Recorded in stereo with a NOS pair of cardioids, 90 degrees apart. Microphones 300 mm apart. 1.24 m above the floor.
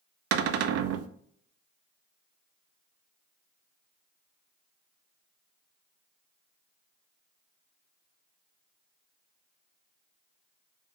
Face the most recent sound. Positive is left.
turn(degrees=-55)